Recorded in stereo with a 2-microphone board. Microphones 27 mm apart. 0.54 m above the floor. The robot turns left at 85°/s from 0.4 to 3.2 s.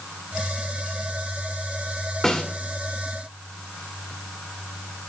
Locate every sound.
2.2 s a snare drum: 10° left (ahead or behind), 1.1 m; by 2.4 s 25° left (ahead or behind), 1.1 m